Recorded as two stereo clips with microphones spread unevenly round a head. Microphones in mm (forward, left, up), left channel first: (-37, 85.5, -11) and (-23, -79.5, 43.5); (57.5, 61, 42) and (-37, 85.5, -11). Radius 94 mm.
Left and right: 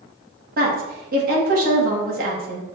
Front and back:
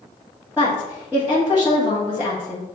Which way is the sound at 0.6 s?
120° right.